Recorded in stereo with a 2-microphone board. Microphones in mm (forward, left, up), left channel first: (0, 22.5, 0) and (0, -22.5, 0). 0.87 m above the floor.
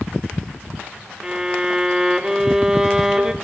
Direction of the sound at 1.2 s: 15° right (ahead or behind).